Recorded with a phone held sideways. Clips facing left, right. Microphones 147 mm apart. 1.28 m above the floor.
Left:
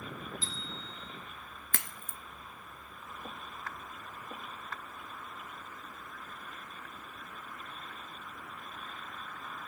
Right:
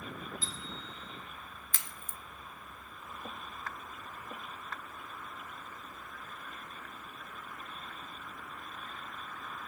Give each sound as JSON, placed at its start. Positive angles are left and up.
{"t": 0.4, "sound": "a bicycle bell", "side_deg": -45, "distance_m": 8.5}
{"t": 1.7, "sound": "a crack", "side_deg": 60, "distance_m": 1.0}